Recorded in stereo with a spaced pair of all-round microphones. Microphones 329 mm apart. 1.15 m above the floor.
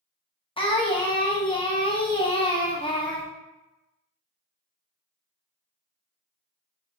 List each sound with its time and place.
0.6 s singing: 15° left (ahead or behind), 0.5 m